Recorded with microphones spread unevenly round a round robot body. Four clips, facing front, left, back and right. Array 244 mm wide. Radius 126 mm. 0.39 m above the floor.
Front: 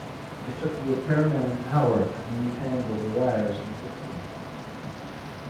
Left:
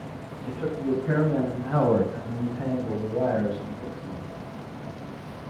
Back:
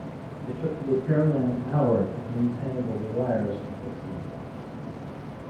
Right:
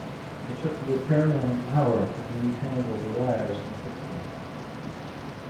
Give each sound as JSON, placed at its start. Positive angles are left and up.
{"t": 0.5, "sound": "a man speaking", "azimuth_deg": 55, "distance_m": 2.5}